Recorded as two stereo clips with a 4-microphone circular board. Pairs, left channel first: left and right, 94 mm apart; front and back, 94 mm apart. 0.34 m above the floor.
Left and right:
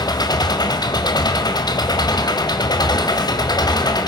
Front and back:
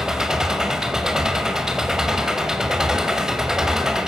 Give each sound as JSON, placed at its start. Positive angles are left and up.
{"t": 0.0, "sound": "an engine running", "azimuth_deg": 100, "distance_m": 1.8}